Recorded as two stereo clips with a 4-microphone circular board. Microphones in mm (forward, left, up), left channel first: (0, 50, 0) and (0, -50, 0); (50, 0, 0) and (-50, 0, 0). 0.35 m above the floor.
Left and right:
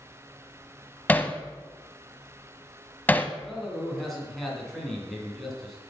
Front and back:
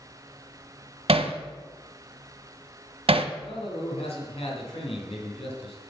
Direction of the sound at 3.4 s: Straight ahead.